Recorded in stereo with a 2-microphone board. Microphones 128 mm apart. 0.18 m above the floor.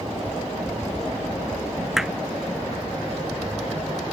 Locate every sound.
2.0 s hammering: 5° right (ahead or behind)